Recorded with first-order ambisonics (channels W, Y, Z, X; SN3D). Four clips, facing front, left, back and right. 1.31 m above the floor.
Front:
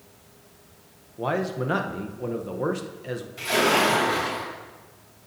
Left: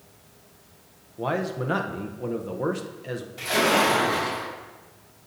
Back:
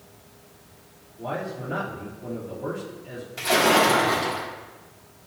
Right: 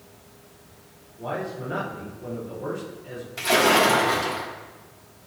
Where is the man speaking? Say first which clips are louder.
Left 3 dB, front 5 dB; 40° left, 0.8 m.